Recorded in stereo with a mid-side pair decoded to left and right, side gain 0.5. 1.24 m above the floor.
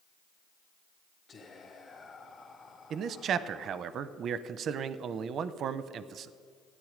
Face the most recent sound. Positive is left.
turn(degrees=-60)